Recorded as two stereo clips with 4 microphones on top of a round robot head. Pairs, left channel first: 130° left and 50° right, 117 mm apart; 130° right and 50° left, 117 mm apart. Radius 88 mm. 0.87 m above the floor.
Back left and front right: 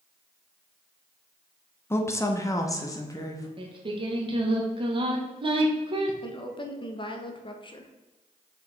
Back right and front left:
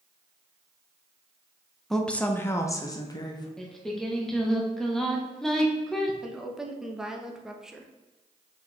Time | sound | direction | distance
1.9 | a woman speaking | 145° left | 0.9 m
3.6 | singing | 45° right | 1.3 m
6.2 | a woman speaking | 135° left | 1.0 m